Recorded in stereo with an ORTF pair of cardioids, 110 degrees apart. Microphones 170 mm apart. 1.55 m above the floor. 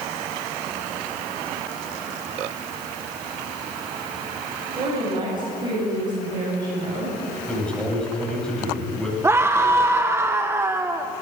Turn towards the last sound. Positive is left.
turn(degrees=-15)